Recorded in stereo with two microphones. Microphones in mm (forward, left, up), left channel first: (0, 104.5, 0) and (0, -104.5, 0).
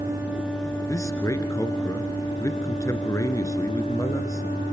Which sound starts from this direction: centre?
A man speaking, at 0.9 s.